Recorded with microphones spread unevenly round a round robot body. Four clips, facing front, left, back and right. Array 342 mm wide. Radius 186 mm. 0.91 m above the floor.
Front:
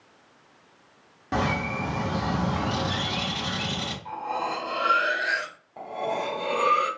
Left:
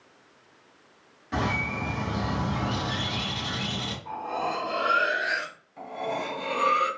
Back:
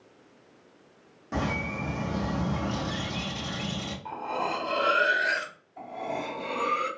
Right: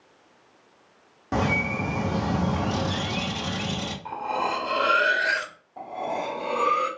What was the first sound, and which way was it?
A bird, 55° right.